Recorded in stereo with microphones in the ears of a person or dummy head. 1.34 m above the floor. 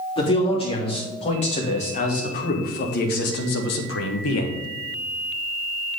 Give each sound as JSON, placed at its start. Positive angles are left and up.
{"t": 0.2, "sound": "a man speaking", "side_deg": 30, "distance_m": 3.0}